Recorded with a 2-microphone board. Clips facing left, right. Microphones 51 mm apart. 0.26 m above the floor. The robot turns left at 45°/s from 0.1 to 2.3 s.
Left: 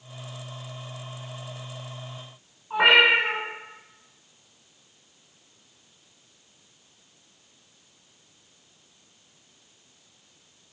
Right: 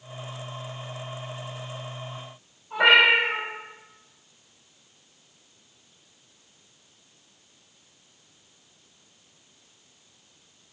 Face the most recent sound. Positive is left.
turn(degrees=50)  # may be behind; listen again after turning